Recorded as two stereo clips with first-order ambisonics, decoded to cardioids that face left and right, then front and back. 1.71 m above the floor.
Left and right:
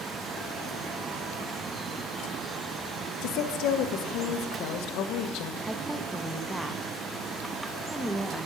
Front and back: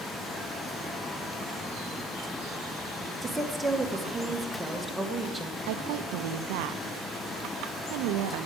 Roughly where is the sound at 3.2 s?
Left.